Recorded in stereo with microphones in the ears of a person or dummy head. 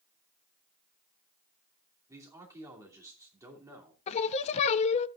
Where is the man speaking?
20° right (ahead or behind), 2.5 m.